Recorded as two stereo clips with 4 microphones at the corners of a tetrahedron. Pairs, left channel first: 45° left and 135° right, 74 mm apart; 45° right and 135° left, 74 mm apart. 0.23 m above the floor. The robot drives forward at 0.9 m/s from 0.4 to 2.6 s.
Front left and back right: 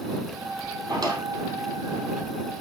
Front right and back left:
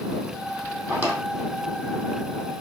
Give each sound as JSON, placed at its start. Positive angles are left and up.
{"t": 0.9, "sound": "a drawer", "azimuth_deg": -170, "distance_m": 2.5}